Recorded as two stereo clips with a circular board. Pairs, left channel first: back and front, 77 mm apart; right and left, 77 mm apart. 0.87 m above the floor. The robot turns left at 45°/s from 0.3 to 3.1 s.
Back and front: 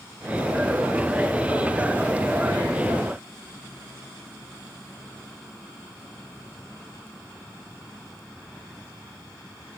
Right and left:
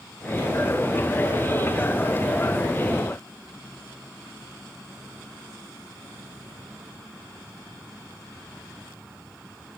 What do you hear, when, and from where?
Only background noise.